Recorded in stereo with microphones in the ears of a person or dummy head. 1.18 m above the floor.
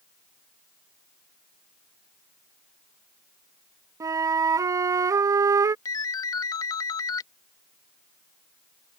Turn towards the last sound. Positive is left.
turn(degrees=25)  # may be behind; listen again after turning